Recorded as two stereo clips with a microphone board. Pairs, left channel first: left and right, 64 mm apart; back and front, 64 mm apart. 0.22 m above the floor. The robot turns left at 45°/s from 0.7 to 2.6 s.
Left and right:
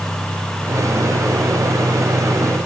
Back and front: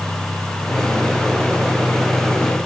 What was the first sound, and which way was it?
Only background noise.